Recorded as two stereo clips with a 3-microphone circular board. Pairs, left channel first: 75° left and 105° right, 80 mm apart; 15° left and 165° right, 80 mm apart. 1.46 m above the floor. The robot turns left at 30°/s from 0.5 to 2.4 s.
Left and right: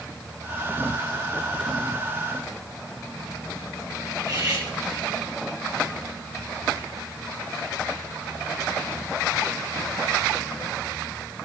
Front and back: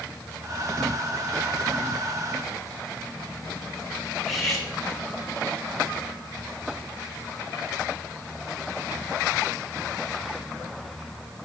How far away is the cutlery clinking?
About 5 m.